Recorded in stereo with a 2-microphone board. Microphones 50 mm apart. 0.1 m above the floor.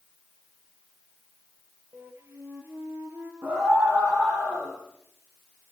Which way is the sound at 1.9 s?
50° right (ahead or behind).